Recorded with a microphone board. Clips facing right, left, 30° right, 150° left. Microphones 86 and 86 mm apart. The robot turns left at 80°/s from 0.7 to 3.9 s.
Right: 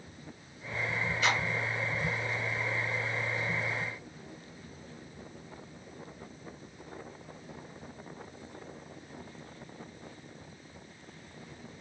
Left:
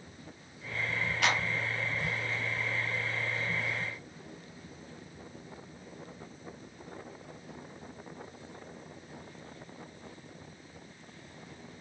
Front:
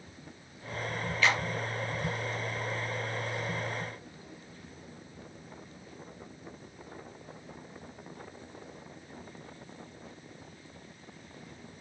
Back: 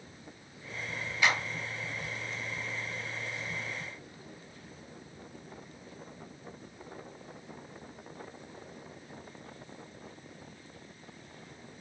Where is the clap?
80° left, 2.5 m; by 1.4 s 65° left, 2.5 m.